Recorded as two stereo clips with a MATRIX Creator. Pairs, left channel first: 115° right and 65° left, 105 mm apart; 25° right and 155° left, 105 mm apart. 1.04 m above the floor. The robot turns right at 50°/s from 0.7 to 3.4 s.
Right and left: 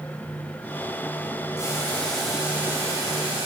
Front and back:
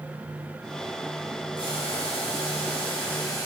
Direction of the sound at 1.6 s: 60° right.